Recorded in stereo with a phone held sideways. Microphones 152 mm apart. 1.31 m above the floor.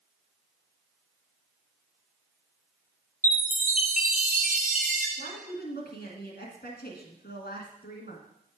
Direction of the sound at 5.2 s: 75° left (ahead or behind).